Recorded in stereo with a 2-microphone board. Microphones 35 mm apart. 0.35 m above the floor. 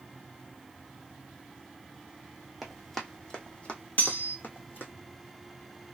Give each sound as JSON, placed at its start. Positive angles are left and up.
{"t": 2.6, "sound": "running footsteps", "side_deg": 0, "distance_m": 1.1}
{"t": 4.0, "sound": "cutlery clinking", "side_deg": 55, "distance_m": 1.1}